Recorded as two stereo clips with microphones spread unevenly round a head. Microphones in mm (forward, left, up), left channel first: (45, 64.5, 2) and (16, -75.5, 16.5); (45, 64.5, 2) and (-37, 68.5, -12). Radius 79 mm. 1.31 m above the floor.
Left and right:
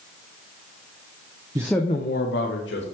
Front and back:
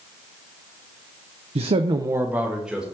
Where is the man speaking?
170° right, 0.5 m; by 2.8 s 90° left, 1.5 m.